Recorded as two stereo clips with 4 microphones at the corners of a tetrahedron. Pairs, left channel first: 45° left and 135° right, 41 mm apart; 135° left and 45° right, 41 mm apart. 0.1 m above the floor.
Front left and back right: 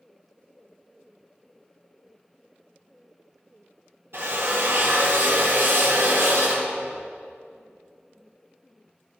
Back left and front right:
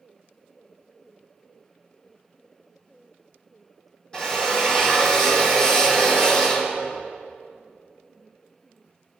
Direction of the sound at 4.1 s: 155° right.